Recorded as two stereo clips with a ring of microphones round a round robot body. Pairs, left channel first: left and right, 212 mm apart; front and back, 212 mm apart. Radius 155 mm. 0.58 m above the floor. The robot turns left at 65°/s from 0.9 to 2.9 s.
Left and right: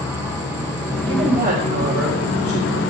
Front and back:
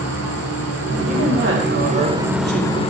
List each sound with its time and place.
0.0 s an insect: 170° right, 1.1 m; by 2.9 s 60° left, 1.1 m
1.1 s a woman speaking: 115° right, 2 m; by 2.8 s 130° left, 2 m